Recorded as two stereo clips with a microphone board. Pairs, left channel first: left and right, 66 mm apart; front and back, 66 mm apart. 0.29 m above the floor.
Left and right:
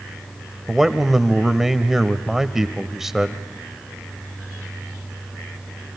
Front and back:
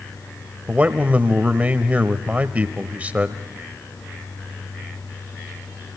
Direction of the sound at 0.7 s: 170° right.